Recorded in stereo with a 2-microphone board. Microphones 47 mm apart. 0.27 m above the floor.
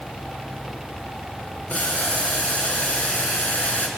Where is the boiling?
30° left (ahead or behind), 4 m.